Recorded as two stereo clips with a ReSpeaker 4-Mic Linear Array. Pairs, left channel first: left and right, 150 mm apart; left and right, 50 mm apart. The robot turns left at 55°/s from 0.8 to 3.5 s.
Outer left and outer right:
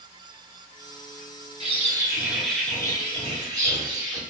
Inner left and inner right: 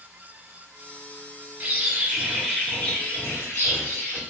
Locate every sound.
1.6 s a bird: 130° right, 1.1 m; by 4.2 s 125° left, 1.1 m